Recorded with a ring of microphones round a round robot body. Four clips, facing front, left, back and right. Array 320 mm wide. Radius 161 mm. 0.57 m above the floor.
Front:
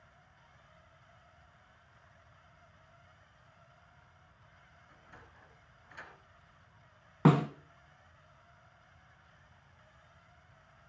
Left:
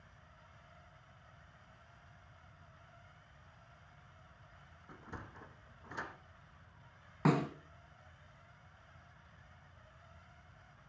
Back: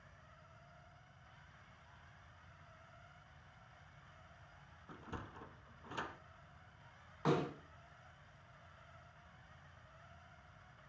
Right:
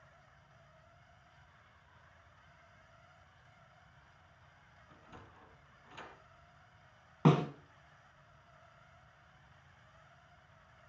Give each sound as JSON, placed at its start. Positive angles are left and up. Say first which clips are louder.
{"t": 4.9, "sound": "a sliding door", "louder": "left 6 dB, back 9 dB", "azimuth_deg": 140, "distance_m": 1.2}
{"t": 7.2, "sound": "a snare drum", "louder": "right 3 dB, front 9 dB", "azimuth_deg": -10, "distance_m": 2.0}